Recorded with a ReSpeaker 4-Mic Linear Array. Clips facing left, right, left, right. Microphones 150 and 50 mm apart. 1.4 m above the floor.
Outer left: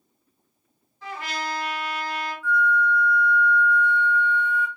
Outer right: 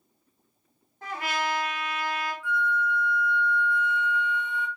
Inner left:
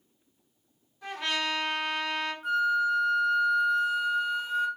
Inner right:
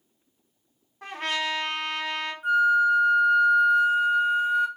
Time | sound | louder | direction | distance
1.0 | a trumpet | outer right 2 dB, inner right 2 dB | 55° right (ahead or behind) | 0.9 m
2.4 | a flute | outer left 7 dB, inner right 6 dB | 20° right (ahead or behind) | 0.9 m